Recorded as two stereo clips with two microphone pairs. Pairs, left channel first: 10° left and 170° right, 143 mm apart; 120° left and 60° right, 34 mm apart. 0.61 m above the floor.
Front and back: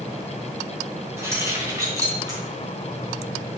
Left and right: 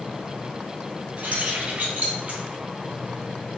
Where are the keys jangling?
100° right, 2.5 m; by 2.4 s 110° right, 3.5 m.